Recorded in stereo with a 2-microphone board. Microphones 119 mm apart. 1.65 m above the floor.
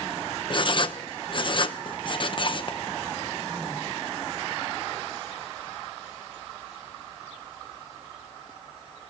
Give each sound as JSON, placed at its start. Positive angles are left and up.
{"t": 0.5, "sound": "writing", "side_deg": 45, "distance_m": 0.7}